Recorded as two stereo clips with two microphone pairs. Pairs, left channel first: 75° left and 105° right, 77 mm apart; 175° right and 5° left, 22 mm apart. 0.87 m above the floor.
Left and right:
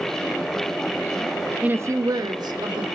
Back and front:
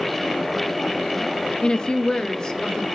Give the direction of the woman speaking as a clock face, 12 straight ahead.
6 o'clock.